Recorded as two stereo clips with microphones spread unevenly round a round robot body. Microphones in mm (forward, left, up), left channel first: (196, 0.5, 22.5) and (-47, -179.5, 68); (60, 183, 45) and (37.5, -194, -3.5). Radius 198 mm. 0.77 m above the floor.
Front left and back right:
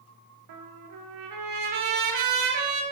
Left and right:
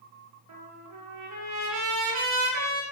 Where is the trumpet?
140° right, 2.0 m.